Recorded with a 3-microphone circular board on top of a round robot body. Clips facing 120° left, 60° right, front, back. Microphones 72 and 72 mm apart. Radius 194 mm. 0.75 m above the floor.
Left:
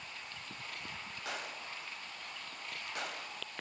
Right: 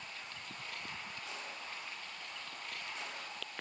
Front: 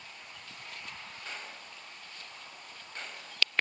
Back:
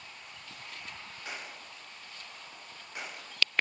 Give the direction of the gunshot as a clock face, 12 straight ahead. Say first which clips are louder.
Left 3 dB, back 2 dB; 9 o'clock.